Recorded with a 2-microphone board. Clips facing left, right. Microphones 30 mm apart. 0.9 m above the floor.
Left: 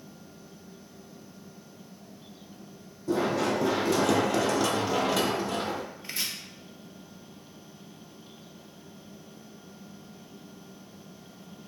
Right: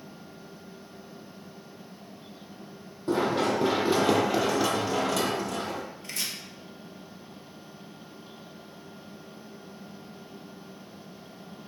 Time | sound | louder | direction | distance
3.1 | running footsteps | right 1 dB | 50° right (ahead or behind) | 1.4 m
6.0 | chopping | left 1 dB | 15° left (ahead or behind) | 0.9 m